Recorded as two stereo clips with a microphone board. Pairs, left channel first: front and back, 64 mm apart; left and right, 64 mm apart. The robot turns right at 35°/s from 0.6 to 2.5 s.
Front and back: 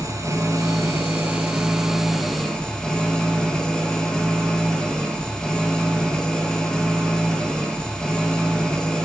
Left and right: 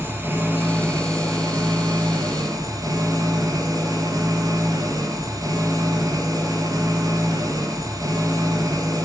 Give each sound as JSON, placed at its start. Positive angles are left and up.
{"t": 0.0, "sound": "an engine running", "azimuth_deg": -145, "distance_m": 4.5}